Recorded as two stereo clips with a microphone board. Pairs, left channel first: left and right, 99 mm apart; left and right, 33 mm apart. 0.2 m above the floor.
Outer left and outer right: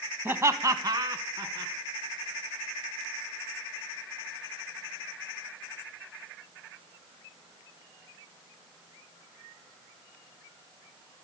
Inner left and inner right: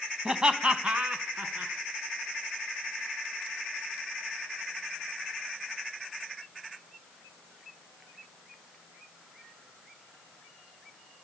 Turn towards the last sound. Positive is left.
turn(degrees=-40)  # may be behind; listen again after turning